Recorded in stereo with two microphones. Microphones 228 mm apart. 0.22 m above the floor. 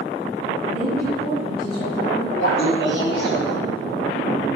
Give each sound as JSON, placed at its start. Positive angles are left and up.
{"t": 0.7, "sound": "a woman speaking", "side_deg": -50, "distance_m": 2.5}
{"t": 2.4, "sound": "laughter", "side_deg": 45, "distance_m": 1.3}